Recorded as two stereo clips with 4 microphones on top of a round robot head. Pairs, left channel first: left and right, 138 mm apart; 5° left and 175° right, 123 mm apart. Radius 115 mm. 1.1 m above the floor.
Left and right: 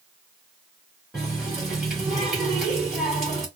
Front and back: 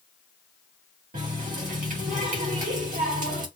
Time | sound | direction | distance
1.1 | a running tap | 175° right | 1.9 m